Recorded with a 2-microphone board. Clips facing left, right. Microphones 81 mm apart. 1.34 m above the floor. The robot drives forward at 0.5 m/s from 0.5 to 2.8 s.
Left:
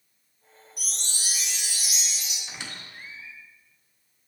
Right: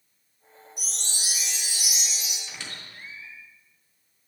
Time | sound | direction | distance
0.8 | a chime | 25° right (ahead or behind) | 1.5 m
2.5 | a squeak | 20° left (ahead or behind) | 2.0 m